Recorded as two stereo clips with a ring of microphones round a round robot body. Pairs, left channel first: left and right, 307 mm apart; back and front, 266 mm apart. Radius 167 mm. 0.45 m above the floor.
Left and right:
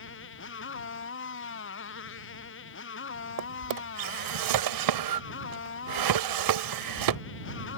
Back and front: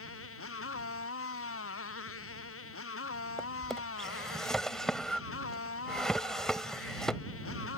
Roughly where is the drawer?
Right.